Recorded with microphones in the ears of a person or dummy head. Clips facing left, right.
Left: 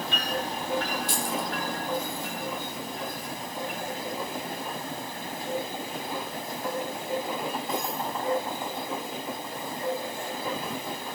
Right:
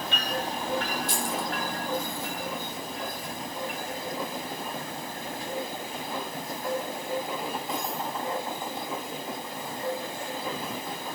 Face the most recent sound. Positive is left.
turn(degrees=65)  # may be behind; listen again after turning